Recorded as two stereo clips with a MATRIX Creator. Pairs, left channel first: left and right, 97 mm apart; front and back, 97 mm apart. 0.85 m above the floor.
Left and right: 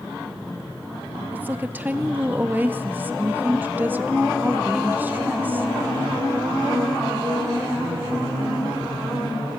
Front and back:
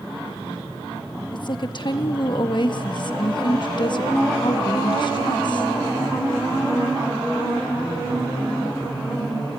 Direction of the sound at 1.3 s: 25° right.